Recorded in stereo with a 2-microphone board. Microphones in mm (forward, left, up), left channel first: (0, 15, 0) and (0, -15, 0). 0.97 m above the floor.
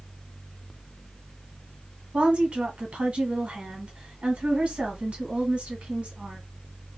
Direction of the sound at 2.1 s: 40° right (ahead or behind).